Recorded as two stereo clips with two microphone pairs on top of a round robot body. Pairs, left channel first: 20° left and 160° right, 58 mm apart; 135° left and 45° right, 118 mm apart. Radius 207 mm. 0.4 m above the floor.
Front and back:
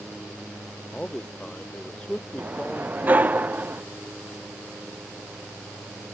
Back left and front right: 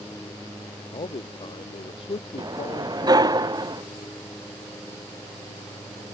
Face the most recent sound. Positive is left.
turn(degrees=-100)